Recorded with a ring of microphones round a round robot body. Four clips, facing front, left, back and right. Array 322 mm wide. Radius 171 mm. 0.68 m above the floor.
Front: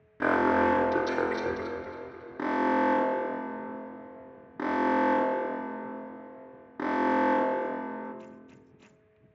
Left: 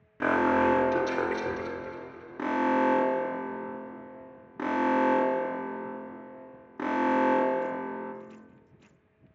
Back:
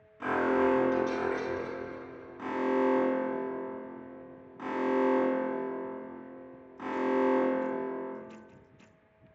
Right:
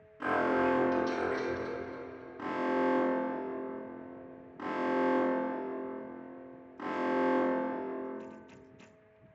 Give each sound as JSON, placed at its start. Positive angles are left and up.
{"t": 0.2, "sound": "an alarm", "azimuth_deg": 35, "distance_m": 0.8}